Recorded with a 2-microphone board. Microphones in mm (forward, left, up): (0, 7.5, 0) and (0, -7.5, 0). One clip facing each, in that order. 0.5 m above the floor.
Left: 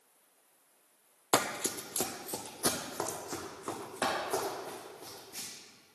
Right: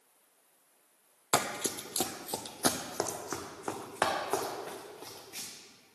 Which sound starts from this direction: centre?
Running footsteps, at 1.3 s.